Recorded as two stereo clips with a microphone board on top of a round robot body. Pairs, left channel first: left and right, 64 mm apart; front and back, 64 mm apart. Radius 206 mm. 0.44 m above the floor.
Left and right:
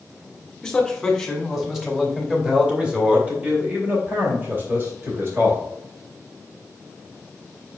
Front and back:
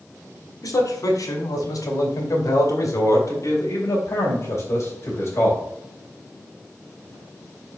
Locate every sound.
0.6 s a man speaking: 10° left, 3 m; by 5.6 s 45° right, 3.5 m